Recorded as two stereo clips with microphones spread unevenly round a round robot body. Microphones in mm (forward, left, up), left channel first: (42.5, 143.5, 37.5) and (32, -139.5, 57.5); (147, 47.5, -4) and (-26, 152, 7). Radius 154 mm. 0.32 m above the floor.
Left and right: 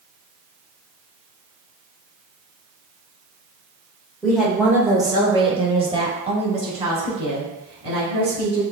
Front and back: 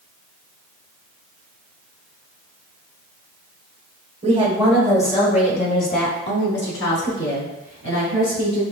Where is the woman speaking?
165° left, 1.1 m; by 8.6 s 20° right, 4 m.